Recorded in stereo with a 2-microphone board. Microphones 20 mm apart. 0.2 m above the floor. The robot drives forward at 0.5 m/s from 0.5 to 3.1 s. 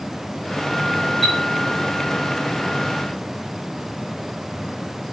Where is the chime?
40° left (ahead or behind), 5 m; by 1.4 s 35° left (ahead or behind), 5 m.